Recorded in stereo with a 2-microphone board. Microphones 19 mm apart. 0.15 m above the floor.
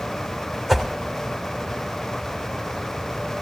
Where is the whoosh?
15° right (ahead or behind), 3 m.